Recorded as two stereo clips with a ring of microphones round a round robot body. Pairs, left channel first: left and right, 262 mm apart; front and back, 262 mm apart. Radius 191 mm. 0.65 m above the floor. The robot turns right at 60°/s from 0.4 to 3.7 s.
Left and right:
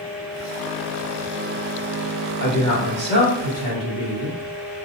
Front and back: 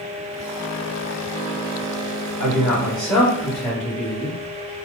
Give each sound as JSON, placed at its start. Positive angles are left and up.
{"t": 2.4, "sound": "a man speaking", "azimuth_deg": -140, "distance_m": 2.0}